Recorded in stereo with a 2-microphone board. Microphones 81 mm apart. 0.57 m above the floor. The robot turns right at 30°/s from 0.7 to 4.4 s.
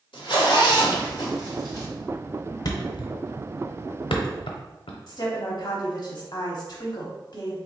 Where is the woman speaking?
45° left (ahead or behind), 0.8 m.